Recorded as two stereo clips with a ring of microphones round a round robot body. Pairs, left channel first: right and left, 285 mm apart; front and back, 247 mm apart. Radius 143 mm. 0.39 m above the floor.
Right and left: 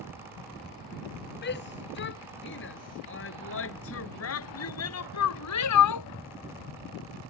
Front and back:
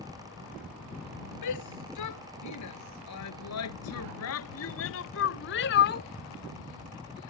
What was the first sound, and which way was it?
A shout, 35° right.